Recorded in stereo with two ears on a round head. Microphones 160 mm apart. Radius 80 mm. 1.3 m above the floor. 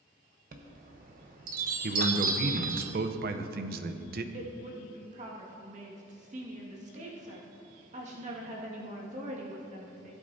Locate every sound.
0.5 s a chime: 45° right (ahead or behind), 0.9 m
1.8 s a man speaking: 50° right (ahead or behind), 0.7 m
4.3 s a woman speaking: 40° right (ahead or behind), 1.9 m